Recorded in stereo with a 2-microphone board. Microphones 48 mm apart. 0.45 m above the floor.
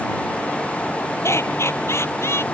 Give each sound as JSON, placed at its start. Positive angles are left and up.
{"t": 1.2, "sound": "laughter", "side_deg": 70}